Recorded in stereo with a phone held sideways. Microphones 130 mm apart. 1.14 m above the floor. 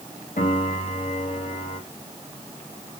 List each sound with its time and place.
0.4 s a piano: 75° left (ahead or behind), 1.5 m